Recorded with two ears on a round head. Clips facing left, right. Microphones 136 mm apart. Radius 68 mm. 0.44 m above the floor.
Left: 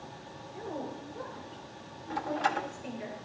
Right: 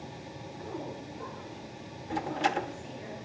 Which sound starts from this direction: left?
A woman speaking, at 0.5 s.